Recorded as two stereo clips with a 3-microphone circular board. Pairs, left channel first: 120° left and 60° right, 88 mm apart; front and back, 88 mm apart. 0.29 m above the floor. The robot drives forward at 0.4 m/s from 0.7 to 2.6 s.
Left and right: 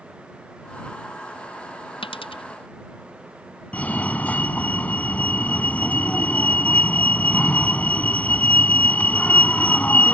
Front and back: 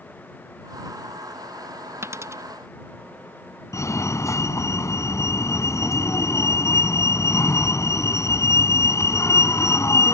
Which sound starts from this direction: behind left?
A dropped coin, at 2.0 s.